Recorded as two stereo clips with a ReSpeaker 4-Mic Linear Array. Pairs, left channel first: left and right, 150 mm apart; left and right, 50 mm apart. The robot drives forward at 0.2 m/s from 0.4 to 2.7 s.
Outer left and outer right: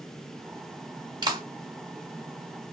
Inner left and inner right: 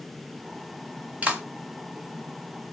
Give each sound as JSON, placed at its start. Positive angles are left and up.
{"t": 1.2, "sound": "a clap", "side_deg": -30, "distance_m": 1.2}